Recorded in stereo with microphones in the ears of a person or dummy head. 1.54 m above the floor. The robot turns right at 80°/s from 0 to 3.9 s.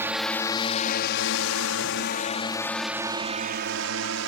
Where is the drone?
15° right (ahead or behind); by 4.3 s 75° right (ahead or behind).